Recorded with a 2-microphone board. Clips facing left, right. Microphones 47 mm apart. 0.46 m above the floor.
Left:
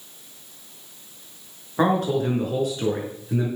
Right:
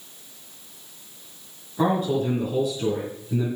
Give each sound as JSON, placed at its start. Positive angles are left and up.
{"t": 1.8, "sound": "a man speaking", "side_deg": 70, "distance_m": 5.0}